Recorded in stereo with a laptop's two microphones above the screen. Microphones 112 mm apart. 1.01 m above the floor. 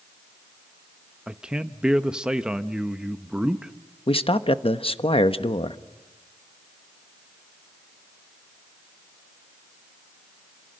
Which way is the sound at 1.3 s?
10° right (ahead or behind).